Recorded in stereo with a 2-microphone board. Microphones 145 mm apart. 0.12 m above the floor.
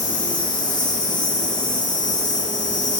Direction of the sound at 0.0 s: 30° left (ahead or behind).